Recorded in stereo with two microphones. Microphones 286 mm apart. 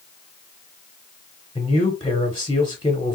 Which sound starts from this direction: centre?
A man speaking, at 1.6 s.